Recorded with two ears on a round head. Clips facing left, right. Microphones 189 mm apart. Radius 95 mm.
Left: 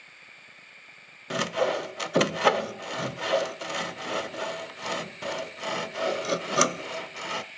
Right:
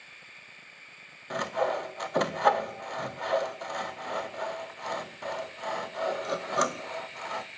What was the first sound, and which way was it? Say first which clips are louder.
Sawing: left 3 dB; 35° left (ahead or behind).